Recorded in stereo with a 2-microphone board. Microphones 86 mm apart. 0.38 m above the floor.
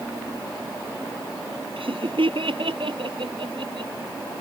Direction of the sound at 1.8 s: 80° right.